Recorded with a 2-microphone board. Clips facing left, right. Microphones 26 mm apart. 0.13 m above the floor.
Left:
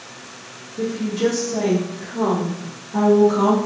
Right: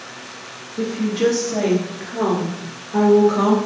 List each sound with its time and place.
0.8 s a woman speaking: 45° right (ahead or behind), 2.0 m; by 3.6 s 40° right (ahead or behind), 1.9 m